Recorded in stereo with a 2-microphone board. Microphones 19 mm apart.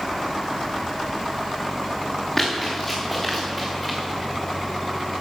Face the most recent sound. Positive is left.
turn(degrees=5)  # may be behind; listen again after turning